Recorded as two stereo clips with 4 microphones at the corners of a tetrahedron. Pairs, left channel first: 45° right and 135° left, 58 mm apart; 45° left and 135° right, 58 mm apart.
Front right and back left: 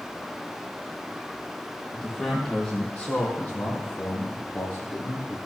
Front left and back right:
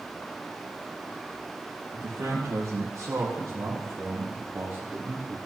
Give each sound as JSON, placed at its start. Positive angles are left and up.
{"t": 1.9, "sound": "a man speaking", "azimuth_deg": -130, "distance_m": 3.5}